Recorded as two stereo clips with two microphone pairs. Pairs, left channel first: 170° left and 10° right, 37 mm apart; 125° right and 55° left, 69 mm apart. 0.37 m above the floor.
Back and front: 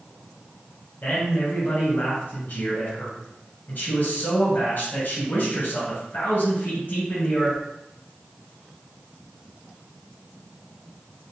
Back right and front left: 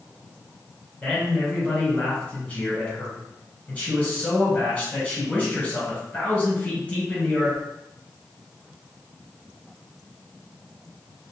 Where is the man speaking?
160° left, 1.6 m.